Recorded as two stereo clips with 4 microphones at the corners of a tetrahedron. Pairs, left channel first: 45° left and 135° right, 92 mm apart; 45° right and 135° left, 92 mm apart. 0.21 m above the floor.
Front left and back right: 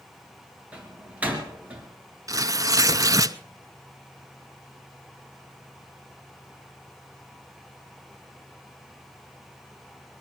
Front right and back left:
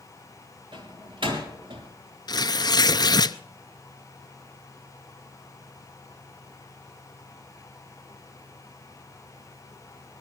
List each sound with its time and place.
0.7 s a door slam: 150° left, 2.5 m
2.3 s tearing paper: 85° right, 0.5 m